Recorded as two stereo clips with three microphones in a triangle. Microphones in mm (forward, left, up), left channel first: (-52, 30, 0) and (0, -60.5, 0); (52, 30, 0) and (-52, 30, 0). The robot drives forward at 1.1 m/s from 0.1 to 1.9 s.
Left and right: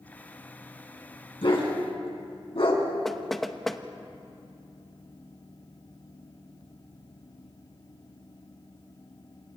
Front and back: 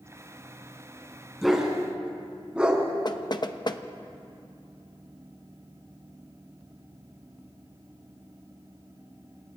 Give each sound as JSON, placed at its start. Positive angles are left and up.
{"t": 1.4, "sound": "a dog barking", "azimuth_deg": 90, "distance_m": 3.5}
{"t": 3.0, "sound": "knocking", "azimuth_deg": 35, "distance_m": 0.8}